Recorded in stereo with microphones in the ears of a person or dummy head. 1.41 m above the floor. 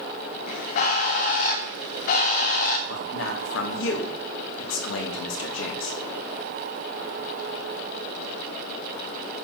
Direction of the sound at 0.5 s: 50° left (ahead or behind).